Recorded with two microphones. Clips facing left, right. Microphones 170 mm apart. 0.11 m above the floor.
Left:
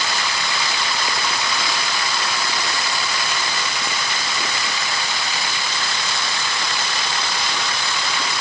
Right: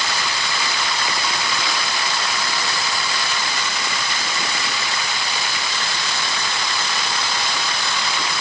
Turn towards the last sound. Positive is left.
No sound to turn to.